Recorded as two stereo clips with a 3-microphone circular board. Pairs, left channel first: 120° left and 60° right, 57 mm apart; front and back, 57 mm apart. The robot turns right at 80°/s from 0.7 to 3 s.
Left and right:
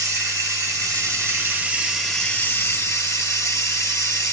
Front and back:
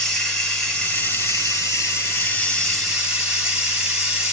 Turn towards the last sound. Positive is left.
turn(degrees=105)